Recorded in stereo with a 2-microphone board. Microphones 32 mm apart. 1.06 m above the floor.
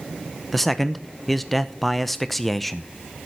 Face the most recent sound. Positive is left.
turn(degrees=5)  # may be behind; listen again after turning